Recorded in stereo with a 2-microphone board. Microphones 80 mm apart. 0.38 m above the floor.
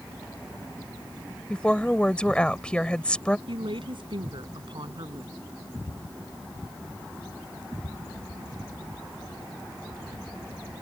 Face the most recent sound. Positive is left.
turn(degrees=-70)  # may be behind; listen again after turning